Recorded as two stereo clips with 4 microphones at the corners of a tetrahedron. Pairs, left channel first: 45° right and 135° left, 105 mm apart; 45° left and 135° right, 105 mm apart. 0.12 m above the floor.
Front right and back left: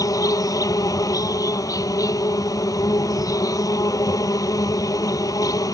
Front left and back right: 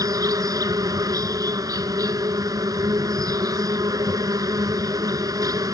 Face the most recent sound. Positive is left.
turn(degrees=-90)